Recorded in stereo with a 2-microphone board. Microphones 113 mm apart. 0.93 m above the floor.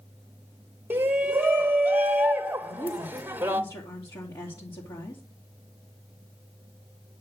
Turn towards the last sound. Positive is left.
turn(degrees=40)  # may be behind; listen again after turning